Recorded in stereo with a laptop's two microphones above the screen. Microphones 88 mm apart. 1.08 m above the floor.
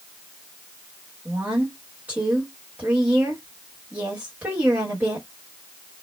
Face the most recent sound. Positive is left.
turn(degrees=-20)  # may be behind; listen again after turning